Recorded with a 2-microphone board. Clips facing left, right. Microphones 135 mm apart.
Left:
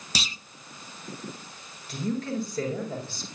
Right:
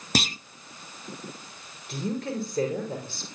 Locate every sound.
0.1 s a clunk: 55° right (ahead or behind), 0.5 m
1.9 s a woman speaking: 55° right (ahead or behind), 7.5 m